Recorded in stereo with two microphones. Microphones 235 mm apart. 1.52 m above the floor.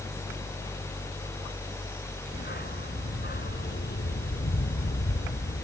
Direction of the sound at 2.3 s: 45° left (ahead or behind).